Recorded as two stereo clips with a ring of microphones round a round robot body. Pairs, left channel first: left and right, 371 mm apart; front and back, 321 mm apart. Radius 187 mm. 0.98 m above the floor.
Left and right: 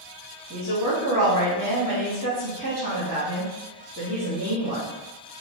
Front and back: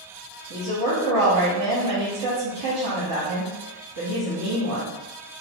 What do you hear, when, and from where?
0.5 s a woman speaking: 145° right, 1.6 m